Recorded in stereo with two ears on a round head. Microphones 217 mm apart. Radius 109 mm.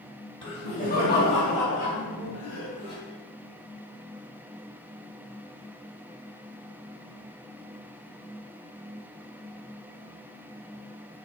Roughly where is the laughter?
Left.